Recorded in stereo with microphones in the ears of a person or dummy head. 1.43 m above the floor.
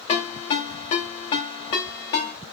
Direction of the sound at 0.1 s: 35° left (ahead or behind).